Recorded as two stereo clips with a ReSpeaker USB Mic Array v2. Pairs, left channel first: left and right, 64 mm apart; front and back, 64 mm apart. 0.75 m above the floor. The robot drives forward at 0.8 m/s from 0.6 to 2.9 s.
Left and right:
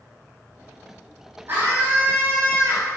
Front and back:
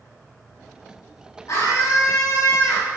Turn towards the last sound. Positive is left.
turn(degrees=-40)